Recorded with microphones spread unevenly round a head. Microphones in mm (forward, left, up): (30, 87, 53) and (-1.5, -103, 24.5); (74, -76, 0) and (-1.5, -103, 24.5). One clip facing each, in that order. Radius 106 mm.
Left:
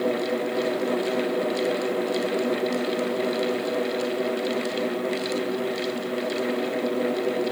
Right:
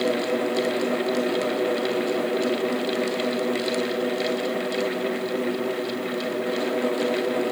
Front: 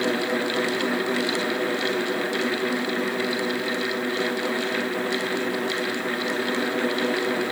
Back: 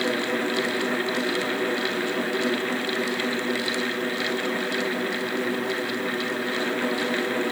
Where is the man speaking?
I don't hear a man speaking.